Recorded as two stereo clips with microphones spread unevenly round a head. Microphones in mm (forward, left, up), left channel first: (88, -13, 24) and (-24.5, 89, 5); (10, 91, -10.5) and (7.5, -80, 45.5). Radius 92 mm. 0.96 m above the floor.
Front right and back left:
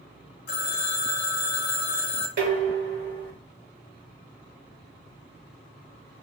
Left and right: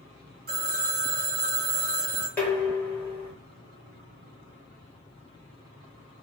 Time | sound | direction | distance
0.5 | a phone ringing | 60° right | 0.8 m
2.4 | dishes clattering | 170° left | 1.0 m